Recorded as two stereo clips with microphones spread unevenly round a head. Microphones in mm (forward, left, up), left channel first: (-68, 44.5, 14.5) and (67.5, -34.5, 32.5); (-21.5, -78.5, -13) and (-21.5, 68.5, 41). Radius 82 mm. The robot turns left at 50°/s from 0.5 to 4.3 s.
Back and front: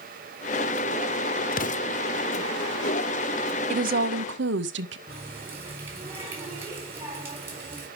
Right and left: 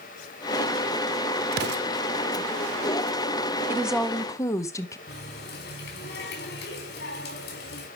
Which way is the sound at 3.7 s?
15° left.